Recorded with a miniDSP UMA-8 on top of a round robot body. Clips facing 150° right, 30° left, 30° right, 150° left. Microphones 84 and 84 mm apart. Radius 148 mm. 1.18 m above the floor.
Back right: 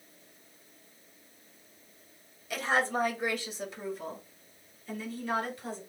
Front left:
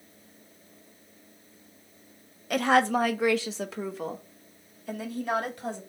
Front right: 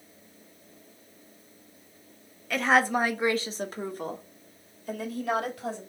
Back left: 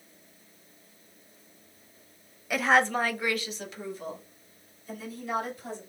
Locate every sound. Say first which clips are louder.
2.5 s a woman speaking: front left 7 dB, even; 70° left, 1.1 m; by 5.8 s straight ahead, 3.5 m